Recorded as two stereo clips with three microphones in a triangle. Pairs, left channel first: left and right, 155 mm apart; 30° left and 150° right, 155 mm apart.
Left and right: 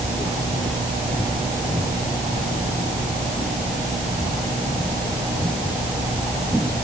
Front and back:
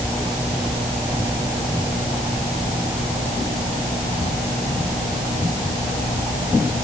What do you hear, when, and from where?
Only background noise.